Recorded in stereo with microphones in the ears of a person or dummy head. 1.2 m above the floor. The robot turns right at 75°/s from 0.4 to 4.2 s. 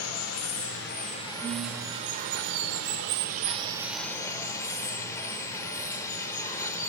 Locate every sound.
0.0 s running water: 90° left, 0.7 m; by 6.9 s 15° left, 0.7 m
1.4 s a guitar: 15° left, 1.6 m; by 2.5 s 100° left, 1.6 m